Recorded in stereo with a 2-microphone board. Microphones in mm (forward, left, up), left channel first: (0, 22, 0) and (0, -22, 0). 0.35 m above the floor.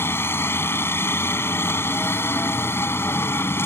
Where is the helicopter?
60° left (ahead or behind).